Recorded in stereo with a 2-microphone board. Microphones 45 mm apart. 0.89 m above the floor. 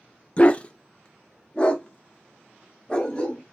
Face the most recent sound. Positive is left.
turn(degrees=20)  # may be behind; listen again after turning